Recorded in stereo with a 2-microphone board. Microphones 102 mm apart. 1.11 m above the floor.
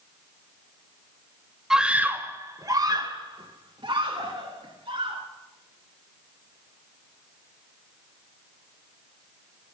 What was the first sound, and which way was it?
A scream, 5° right (ahead or behind).